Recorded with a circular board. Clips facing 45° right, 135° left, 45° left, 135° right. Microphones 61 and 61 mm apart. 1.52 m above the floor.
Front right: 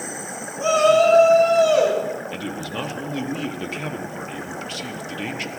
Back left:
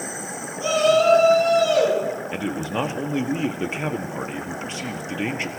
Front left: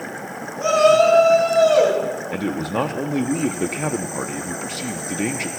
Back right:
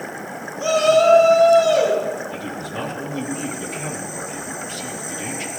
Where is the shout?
5° left, 5.5 m; by 2.0 s 15° left, 5 m.